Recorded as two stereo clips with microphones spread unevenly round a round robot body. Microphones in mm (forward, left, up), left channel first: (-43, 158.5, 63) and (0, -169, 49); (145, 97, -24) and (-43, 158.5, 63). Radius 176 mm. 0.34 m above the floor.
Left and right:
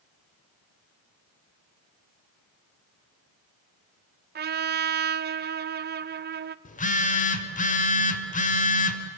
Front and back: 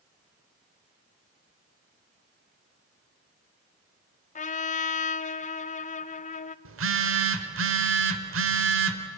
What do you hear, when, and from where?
4.3 s a trumpet: 25° right, 0.6 m
6.7 s a phone buzzing: 160° left, 1.8 m